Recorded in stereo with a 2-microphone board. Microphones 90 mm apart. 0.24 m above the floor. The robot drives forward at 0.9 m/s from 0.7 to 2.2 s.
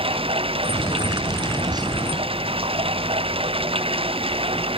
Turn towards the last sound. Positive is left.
turn(degrees=-90)